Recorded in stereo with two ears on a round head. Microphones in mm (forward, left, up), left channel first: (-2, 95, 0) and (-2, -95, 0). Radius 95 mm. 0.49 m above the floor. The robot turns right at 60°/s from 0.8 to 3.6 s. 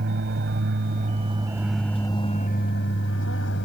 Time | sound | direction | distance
0.0 | an aircraft | 55° right | ?